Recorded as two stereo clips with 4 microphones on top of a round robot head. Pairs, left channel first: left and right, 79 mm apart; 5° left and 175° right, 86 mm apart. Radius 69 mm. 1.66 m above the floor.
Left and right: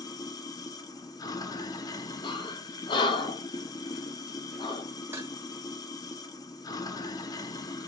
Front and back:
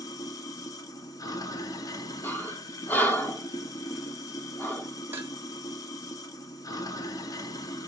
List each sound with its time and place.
0.0 s running water: 50° left, 1.2 m
2.2 s breathing: 75° left, 1.5 m
5.1 s dishes clattering: 125° right, 0.7 m